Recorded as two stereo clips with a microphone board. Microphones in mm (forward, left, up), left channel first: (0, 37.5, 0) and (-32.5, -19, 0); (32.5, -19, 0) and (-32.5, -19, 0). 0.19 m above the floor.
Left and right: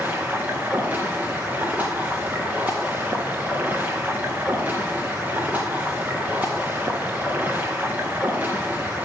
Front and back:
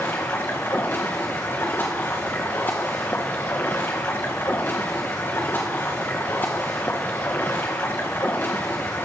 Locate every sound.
0.0 s running water: 55° right, 1.7 m